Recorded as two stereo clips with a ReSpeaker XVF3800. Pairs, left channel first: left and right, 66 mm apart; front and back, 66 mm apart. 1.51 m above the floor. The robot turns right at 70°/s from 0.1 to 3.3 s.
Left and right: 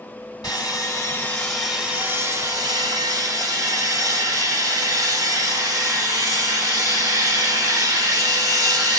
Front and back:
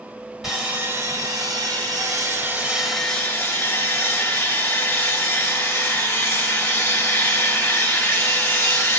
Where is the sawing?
95° left, 1.8 m; by 9.0 s 65° right, 1.8 m.